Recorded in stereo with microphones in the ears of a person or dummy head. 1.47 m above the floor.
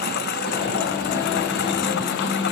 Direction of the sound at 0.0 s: 60° left (ahead or behind).